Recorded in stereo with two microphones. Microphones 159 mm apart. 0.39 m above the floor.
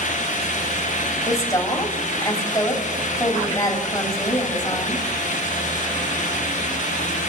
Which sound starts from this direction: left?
A woman speaking, at 1.2 s.